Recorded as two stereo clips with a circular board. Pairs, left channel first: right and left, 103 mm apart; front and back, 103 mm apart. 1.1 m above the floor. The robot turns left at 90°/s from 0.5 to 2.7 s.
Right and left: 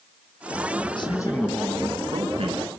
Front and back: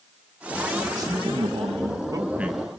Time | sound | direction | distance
1.0 | a man speaking | 125° right | 1.7 m